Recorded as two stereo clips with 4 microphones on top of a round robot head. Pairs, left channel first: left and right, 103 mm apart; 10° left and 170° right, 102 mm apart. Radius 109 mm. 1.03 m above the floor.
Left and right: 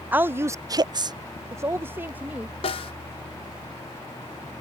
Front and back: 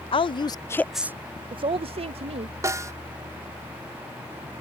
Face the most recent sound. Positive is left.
turn(degrees=130)